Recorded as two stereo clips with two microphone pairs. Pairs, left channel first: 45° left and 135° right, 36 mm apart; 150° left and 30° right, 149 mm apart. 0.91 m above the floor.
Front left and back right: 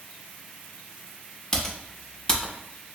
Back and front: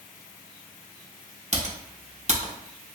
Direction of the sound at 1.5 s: 25° right.